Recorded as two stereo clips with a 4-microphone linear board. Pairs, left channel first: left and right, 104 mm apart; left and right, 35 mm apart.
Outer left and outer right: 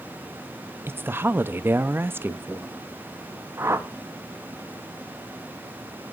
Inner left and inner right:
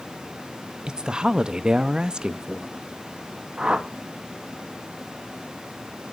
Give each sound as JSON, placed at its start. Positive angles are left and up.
{"t": 0.9, "sound": "a woman speaking", "side_deg": -20, "distance_m": 0.5}
{"t": 3.6, "sound": "a whoosh", "side_deg": -25, "distance_m": 0.7}